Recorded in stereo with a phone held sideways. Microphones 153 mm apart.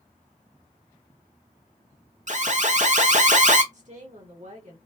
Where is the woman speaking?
55° right (ahead or behind), 1.6 m.